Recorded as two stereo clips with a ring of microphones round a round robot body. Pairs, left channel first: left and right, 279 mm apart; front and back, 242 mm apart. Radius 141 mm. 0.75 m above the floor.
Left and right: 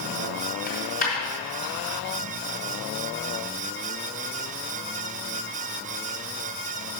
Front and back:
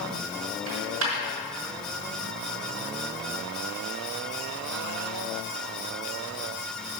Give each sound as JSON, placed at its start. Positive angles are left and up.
{"t": 0.7, "sound": "a dropped coin", "azimuth_deg": 155, "distance_m": 4.0}